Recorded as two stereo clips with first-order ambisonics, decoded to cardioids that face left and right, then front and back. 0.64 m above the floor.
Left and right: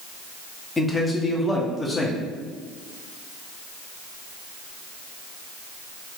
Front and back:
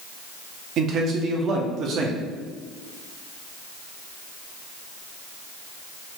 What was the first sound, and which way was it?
A man speaking, 160° left.